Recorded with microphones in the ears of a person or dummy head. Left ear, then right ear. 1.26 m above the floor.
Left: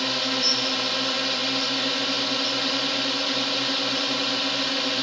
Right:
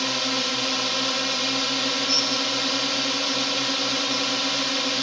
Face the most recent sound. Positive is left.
turn(degrees=-5)  # may be behind; listen again after turning